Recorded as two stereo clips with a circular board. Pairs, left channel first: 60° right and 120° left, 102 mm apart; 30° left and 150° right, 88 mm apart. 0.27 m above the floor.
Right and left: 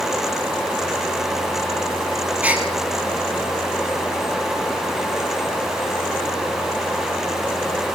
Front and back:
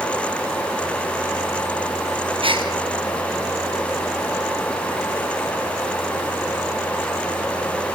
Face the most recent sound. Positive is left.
turn(degrees=-165)